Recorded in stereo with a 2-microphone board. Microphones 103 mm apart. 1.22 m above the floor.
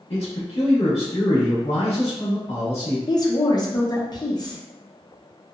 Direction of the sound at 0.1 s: 85° left.